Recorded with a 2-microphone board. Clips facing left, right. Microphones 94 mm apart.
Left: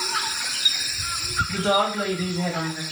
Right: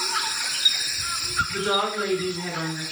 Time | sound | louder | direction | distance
1.5 | a woman speaking | left 5 dB | 55° left (ahead or behind) | 1.6 m